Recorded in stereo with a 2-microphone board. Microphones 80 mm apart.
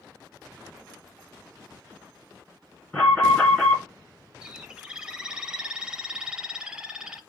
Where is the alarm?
15° left (ahead or behind), 2.5 m.